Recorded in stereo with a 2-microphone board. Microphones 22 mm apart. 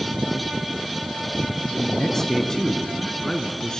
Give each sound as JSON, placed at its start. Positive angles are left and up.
{"t": 1.8, "sound": "a man speaking", "side_deg": 20, "distance_m": 2.0}